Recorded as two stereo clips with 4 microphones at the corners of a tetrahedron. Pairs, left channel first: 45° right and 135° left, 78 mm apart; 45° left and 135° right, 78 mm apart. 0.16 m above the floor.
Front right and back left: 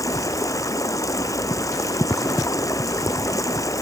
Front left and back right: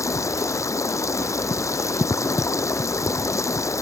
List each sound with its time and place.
0.0 s running water: straight ahead